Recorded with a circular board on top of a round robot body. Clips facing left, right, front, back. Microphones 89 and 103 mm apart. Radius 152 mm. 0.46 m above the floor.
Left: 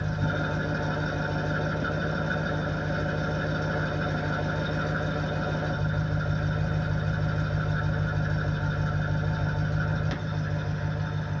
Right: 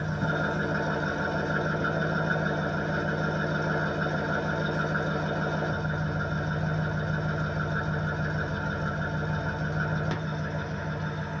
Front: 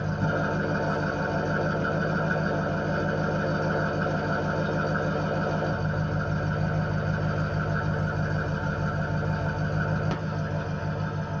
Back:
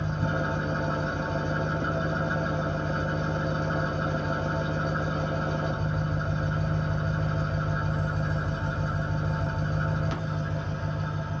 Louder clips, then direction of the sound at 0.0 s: Right 1 dB, front 2 dB; 40° right.